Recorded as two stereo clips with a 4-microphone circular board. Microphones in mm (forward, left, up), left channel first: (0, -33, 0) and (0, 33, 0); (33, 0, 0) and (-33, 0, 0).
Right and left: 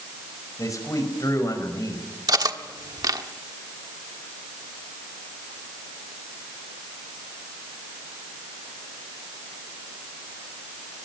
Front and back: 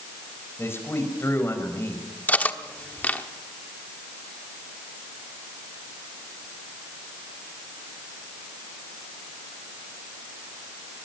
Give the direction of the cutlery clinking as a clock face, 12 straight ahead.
10 o'clock.